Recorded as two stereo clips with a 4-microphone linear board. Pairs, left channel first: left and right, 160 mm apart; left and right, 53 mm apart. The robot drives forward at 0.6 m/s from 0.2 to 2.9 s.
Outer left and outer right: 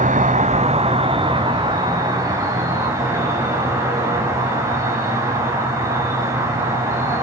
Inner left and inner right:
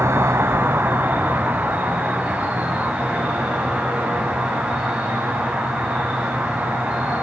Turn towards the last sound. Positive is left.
turn(degrees=-20)  # may be behind; listen again after turning